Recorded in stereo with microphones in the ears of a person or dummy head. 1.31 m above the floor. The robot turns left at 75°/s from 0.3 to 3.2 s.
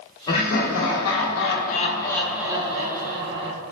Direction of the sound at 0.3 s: 145° left.